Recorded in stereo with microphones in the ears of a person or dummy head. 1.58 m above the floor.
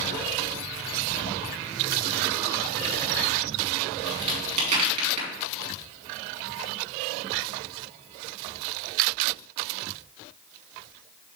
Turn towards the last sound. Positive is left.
turn(degrees=-35)  # may be behind; listen again after turning